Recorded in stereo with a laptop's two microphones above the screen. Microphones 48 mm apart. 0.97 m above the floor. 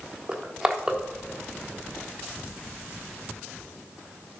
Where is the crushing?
20° right (ahead or behind), 0.8 m.